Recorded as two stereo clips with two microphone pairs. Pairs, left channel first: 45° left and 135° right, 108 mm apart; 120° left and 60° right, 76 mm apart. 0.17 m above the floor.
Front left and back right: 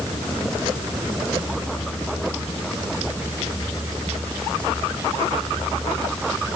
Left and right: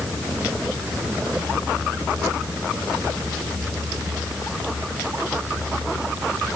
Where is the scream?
I don't hear a scream.